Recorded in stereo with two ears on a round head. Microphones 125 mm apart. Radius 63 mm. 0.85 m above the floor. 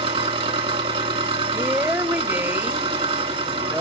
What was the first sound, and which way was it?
An engine running, 45° right (ahead or behind).